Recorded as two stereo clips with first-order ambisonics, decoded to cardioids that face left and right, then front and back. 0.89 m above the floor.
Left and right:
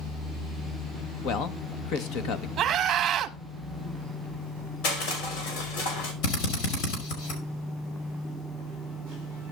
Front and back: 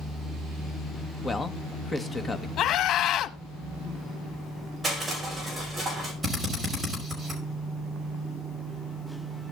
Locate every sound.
1.2 s a man speaking: 70° left, 1.0 m
2.6 s a scream: 35° right, 1.6 m
4.8 s crushing: 95° left, 5 m
6.2 s a drill: 90° left, 5 m